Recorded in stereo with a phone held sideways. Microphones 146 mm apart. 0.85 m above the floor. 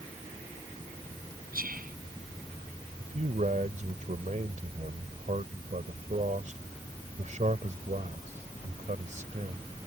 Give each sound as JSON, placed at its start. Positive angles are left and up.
{"t": 1.5, "sound": "whispering", "side_deg": -85}
{"t": 3.0, "sound": "a man speaking", "side_deg": -60}